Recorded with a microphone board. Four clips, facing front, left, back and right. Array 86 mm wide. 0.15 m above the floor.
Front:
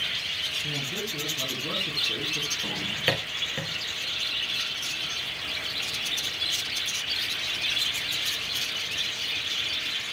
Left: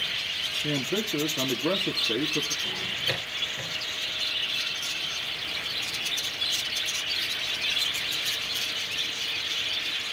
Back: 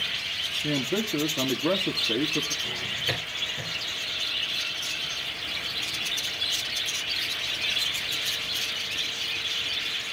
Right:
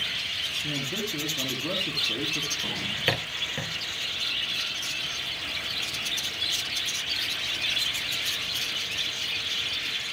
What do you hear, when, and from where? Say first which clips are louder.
0.6 s a man speaking: left 5 dB, back 9 dB; 145° left, 2 m
2.6 s a drawer: right 3 dB, front 4 dB; 45° right, 5 m